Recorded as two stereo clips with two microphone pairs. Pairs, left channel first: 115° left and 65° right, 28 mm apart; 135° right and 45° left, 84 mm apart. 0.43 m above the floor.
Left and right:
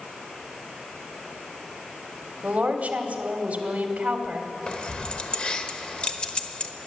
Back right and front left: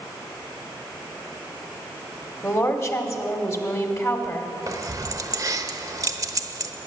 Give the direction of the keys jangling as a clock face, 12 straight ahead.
10 o'clock.